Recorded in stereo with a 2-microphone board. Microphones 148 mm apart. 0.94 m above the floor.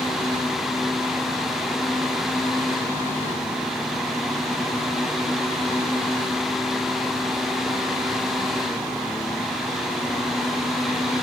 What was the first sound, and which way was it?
Only background noise.